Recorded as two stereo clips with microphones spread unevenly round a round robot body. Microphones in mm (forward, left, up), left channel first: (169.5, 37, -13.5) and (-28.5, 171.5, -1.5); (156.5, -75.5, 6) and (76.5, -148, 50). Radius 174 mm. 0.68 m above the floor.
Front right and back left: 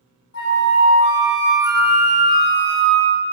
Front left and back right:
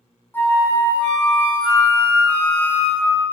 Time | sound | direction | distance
0.3 | a flute | 10° right | 0.7 m